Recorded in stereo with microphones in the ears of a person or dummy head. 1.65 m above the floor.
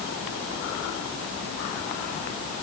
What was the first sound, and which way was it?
Only background noise.